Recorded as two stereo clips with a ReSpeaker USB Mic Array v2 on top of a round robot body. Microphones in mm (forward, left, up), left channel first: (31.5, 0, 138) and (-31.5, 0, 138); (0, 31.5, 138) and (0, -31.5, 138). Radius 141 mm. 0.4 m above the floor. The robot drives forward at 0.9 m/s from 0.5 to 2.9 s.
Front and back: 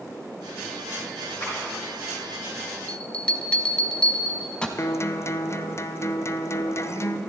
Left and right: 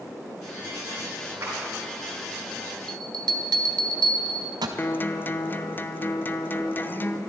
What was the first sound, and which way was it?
A clap, 45° right.